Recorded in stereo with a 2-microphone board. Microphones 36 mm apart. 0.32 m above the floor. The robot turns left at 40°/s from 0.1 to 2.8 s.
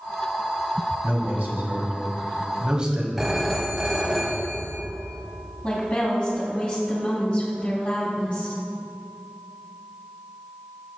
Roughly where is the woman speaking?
Left.